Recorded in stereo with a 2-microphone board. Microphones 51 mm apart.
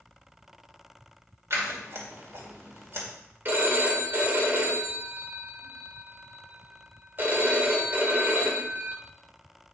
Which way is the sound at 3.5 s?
40° right (ahead or behind).